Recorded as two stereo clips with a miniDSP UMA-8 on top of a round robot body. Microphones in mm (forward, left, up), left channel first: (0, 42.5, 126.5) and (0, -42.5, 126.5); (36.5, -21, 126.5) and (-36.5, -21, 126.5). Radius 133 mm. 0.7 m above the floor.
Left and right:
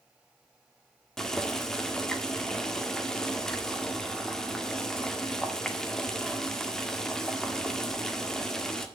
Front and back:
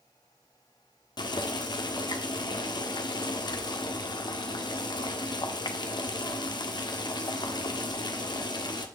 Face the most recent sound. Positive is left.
turn(degrees=5)